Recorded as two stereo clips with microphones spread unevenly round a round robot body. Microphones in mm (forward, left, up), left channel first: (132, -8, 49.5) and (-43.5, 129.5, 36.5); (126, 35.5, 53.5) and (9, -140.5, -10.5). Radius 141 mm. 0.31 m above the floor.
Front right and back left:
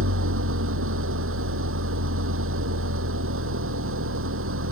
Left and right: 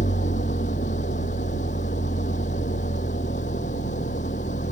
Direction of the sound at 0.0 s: 120° left.